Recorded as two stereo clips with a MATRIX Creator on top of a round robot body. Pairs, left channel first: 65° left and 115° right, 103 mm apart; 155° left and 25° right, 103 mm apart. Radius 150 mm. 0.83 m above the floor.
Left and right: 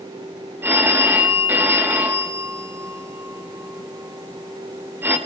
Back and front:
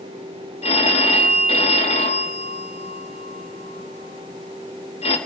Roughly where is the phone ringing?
Behind.